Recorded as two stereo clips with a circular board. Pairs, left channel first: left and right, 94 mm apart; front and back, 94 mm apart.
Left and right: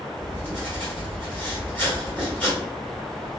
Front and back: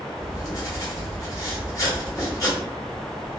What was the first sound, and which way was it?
Writing, 30° left.